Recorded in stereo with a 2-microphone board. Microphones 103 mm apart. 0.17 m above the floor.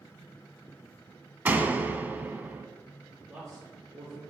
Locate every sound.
1.4 s a door slam: 15° right (ahead or behind), 0.7 m
3.3 s a man speaking: 25° right (ahead or behind), 3.5 m